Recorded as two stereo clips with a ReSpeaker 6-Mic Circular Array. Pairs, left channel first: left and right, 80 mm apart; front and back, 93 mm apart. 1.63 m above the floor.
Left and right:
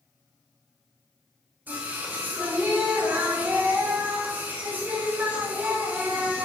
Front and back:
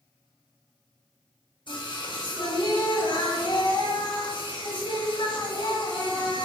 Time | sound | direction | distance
1.7 | singing | 25° right | 1.9 m